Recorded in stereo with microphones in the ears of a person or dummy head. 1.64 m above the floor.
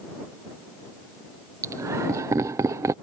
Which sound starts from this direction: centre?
Laughter, at 1.6 s.